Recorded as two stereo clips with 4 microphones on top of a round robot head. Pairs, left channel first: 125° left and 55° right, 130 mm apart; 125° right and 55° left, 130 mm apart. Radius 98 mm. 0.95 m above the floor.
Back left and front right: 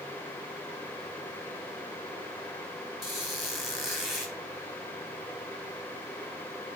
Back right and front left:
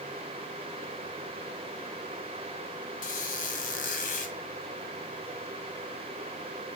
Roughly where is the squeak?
Behind right.